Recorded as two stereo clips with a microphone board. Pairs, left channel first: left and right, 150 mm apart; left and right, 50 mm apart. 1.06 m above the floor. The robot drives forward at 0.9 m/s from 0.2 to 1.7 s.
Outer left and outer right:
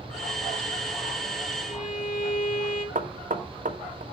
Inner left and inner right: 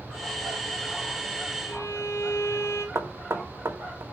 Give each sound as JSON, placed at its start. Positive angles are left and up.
{"t": 1.6, "sound": "a violin", "side_deg": 65, "distance_m": 2.0}
{"t": 3.0, "sound": "knocking", "side_deg": -60, "distance_m": 1.1}